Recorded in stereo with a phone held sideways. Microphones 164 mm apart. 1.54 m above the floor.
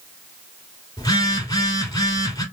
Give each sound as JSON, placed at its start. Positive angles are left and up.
{"t": 1.0, "sound": "a phone buzzing", "side_deg": 25, "distance_m": 2.5}